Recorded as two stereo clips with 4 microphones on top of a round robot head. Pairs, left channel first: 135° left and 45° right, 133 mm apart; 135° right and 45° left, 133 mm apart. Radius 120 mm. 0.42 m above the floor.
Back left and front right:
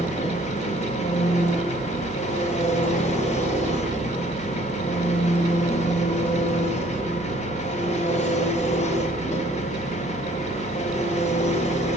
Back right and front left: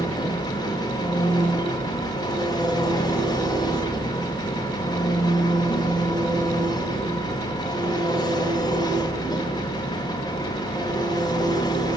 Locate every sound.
0.0 s an engine running: 165° left, 1.2 m